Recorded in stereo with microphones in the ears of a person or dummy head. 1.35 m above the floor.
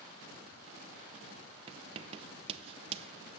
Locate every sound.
1.7 s writing: 30° right (ahead or behind), 0.6 m